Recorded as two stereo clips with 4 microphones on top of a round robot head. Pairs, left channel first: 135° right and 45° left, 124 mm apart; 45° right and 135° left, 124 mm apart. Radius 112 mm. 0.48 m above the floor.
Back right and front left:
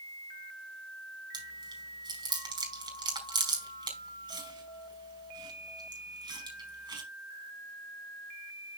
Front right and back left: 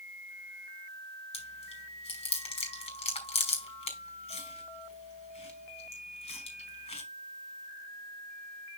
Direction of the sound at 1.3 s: 10° right.